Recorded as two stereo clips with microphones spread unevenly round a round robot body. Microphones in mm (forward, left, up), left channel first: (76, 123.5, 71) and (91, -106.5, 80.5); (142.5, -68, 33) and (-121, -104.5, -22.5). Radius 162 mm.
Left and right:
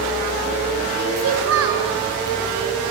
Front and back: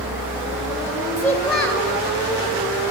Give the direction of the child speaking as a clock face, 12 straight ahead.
3 o'clock.